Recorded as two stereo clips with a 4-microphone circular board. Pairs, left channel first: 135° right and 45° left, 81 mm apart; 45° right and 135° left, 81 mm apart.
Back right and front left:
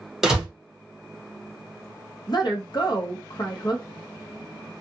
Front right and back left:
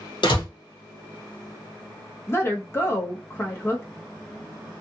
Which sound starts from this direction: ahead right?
A door slam, at 0.2 s.